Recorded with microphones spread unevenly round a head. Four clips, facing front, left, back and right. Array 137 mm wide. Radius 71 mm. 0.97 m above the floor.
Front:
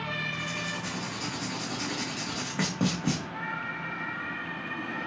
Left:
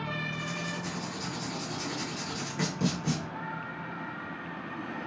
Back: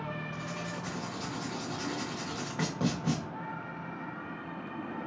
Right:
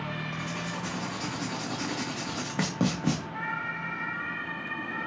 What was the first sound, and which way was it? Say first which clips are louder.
Writing: right 1 dB, front 3 dB; 65° right.